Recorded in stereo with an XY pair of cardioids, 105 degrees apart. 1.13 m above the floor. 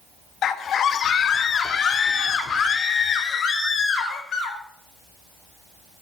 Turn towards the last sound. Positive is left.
turn(degrees=55)